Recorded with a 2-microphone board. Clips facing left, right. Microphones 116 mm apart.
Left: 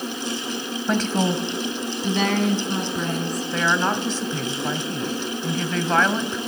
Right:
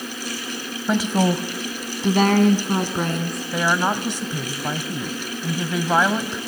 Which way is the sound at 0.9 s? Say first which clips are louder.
Right 2 dB; 5° right (ahead or behind).